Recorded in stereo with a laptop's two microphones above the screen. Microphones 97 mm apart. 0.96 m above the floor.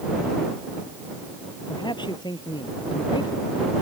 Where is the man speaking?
50° left (ahead or behind); by 3.5 s 45° left (ahead or behind).